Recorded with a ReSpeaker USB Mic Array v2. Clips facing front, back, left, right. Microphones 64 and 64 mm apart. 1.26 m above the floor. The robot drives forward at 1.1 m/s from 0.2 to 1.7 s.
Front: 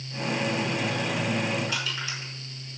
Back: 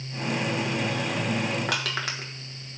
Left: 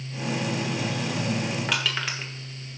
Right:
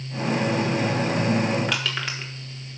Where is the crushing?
Straight behind, 1.8 m.